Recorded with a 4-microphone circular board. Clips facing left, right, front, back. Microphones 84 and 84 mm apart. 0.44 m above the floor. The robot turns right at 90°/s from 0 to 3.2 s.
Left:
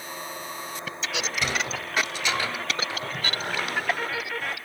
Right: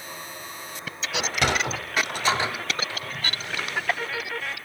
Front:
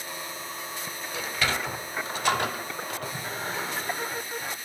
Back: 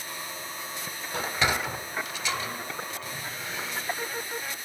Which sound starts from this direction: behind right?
A sliding door, at 1.1 s.